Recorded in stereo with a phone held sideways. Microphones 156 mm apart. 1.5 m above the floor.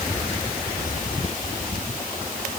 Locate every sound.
Only background noise.